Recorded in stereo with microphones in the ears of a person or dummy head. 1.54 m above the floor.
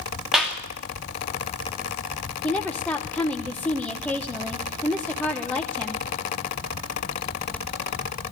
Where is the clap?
5° right (ahead or behind), 2.5 m.